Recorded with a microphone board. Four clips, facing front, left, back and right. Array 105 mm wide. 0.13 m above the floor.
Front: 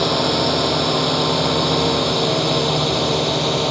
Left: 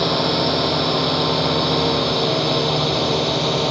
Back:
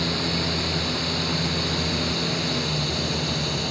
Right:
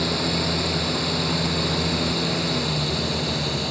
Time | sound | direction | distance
0.0 | a drone | 40° left | ?